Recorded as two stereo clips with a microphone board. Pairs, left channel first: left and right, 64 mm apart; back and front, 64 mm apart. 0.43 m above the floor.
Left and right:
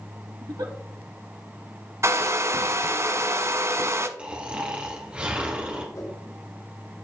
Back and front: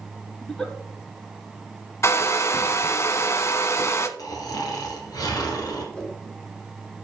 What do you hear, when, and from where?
0.4 s a giggle: 105° right, 1.4 m
2.0 s a hair dryer: 135° right, 0.7 m
4.2 s snoring: 165° right, 1.9 m
6.0 s a whoosh: 105° left, 4.5 m